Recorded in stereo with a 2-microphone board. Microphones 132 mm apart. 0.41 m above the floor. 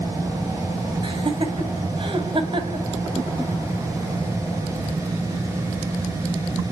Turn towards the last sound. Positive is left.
turn(degrees=-40)  # may be behind; listen again after turning